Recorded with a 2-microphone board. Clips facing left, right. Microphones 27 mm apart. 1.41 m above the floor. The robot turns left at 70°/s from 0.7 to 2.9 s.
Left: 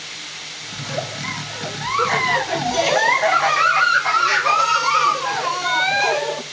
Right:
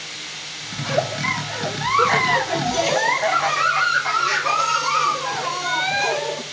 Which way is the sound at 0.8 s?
20° right (ahead or behind).